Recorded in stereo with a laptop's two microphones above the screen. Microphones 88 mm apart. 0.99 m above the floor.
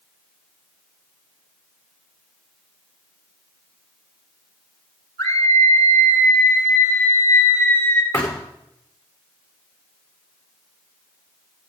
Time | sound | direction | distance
5.2 | a scream | 40° left (ahead or behind) | 4.5 m
8.1 | a thud | 30° left (ahead or behind) | 9 m